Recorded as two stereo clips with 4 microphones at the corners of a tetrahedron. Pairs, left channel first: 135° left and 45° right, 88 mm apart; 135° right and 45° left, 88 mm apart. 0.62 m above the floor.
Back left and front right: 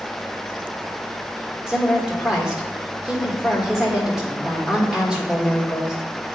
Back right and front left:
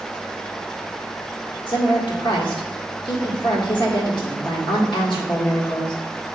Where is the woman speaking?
125° right, 1.7 m.